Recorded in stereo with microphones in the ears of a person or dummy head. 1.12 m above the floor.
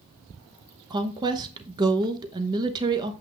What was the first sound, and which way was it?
A woman speaking, 20° right (ahead or behind).